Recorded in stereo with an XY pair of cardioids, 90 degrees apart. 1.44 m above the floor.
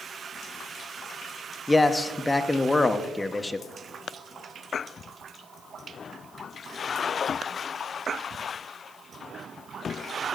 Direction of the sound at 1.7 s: 20° left.